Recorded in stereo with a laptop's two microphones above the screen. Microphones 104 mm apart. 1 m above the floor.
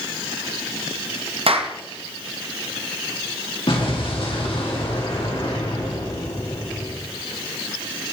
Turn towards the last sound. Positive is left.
turn(degrees=60)  # may be behind; listen again after turning